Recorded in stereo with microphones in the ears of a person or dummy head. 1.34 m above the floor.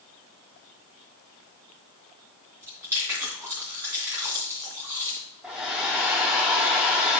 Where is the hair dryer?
5° right (ahead or behind), 1.2 m.